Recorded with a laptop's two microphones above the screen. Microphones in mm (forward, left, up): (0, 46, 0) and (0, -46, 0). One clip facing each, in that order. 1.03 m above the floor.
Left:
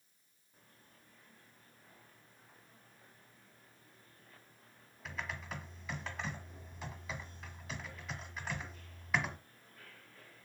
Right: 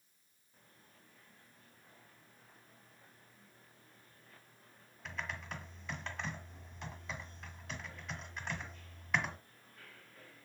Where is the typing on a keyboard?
5° left (ahead or behind), 1.6 m.